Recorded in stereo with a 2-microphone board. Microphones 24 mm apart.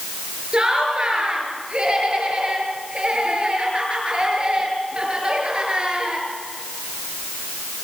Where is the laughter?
40° right (ahead or behind), 6.5 m.